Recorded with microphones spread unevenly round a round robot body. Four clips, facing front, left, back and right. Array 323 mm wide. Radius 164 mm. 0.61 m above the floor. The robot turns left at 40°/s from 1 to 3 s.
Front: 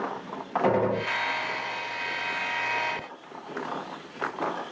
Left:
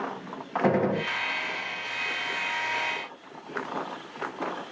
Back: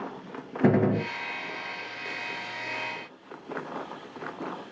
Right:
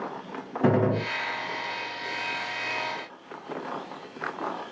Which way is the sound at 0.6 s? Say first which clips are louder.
Right 1 dB, back 2 dB; 150° right.